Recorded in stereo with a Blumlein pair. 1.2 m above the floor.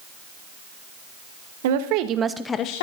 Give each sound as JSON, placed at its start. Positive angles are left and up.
{"t": 1.6, "sound": "a woman speaking", "azimuth_deg": -55, "distance_m": 1.1}